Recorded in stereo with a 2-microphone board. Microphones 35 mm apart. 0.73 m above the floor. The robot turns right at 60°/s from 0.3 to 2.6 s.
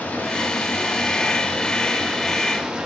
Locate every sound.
0.0 s running water: 60° left, 0.8 m; by 2.9 s 160° right, 0.8 m